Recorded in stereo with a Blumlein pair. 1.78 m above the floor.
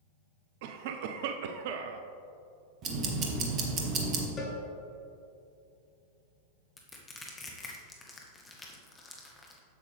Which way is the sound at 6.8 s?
10° left.